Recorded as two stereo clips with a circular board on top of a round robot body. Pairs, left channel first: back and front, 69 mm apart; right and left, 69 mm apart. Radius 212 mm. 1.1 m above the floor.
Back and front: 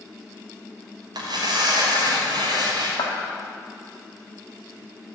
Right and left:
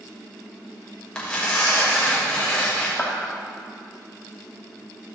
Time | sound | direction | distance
1.1 | tearing paper | 15° right | 2.5 m
3.0 | a clap | 160° right | 2 m